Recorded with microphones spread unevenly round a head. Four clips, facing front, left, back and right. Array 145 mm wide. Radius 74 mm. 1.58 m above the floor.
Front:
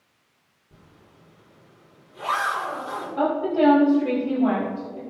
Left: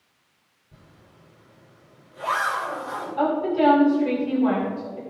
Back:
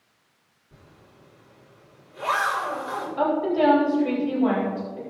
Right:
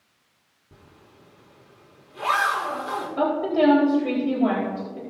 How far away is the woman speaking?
About 4.5 m.